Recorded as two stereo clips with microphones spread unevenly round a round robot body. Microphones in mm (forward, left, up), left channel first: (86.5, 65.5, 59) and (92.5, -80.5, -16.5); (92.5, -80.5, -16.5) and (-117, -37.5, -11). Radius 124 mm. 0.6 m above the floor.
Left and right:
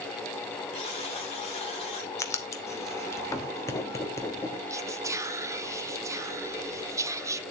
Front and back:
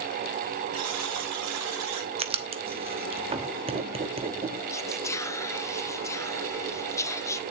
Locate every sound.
0.7 s a buzzer: 160° left, 2.5 m
2.2 s writing: 160° right, 1.0 m
4.7 s whispering: 80° right, 0.9 m